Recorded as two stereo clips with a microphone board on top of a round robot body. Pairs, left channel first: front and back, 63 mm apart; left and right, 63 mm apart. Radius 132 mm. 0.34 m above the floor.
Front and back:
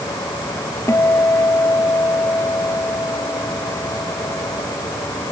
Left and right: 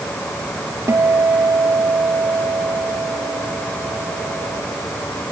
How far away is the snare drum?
No snare drum in this recording.